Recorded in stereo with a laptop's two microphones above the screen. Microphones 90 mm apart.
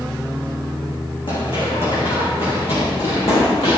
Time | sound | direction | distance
1.3 | running footsteps | 70° left (ahead or behind) | 3 m